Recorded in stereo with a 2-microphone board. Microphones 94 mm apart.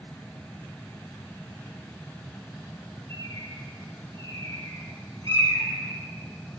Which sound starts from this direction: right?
A bird, at 3.1 s.